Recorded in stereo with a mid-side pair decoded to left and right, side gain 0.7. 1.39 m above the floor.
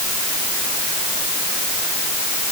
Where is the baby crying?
No baby crying in this recording.